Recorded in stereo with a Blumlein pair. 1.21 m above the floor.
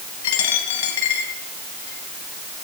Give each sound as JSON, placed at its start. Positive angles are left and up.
{"t": 0.2, "sound": "a dropped coin", "azimuth_deg": 55, "distance_m": 2.5}